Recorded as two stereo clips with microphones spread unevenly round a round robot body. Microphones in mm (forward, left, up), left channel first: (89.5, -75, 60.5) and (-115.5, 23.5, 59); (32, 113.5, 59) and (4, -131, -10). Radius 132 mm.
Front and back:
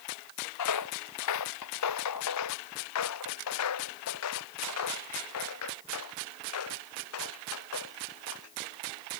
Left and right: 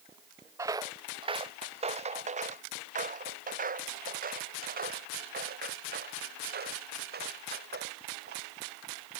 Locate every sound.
0.6 s footsteps: 15° right; by 8.5 s 45° right